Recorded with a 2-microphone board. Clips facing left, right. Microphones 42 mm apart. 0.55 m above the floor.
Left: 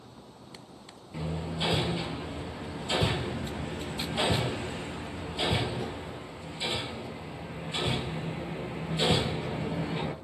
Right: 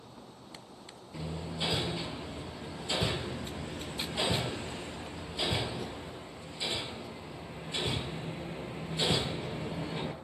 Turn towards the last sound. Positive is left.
turn(degrees=20)  # may be behind; listen again after turning